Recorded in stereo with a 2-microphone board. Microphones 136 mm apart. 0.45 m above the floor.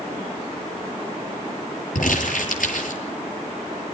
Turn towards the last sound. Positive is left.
turn(degrees=80)